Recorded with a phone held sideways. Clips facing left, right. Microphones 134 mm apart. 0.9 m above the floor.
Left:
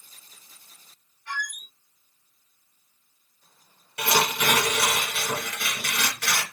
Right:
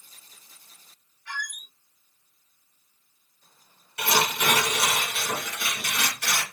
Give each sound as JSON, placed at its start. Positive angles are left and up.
{"t": 1.3, "sound": "a squeak", "side_deg": 50, "distance_m": 1.3}
{"t": 4.0, "sound": "tearing paper", "side_deg": 70, "distance_m": 1.8}